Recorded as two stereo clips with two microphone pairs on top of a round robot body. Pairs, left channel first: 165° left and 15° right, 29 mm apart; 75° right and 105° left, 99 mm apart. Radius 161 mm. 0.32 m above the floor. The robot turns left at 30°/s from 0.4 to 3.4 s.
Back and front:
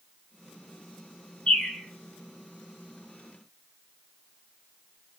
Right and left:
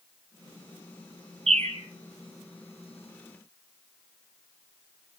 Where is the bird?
110° left, 2.0 m; by 1.8 s 100° left, 2.0 m.